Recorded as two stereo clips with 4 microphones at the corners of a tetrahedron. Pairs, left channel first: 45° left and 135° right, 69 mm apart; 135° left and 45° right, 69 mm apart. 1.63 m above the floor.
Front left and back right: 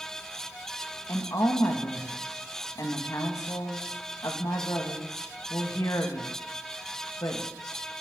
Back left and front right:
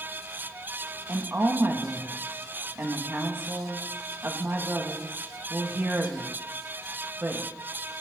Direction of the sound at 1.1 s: 15° left.